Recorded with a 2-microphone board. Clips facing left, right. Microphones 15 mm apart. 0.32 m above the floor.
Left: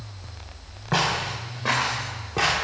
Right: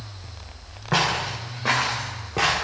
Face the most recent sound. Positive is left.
turn(degrees=-5)  # may be behind; listen again after turning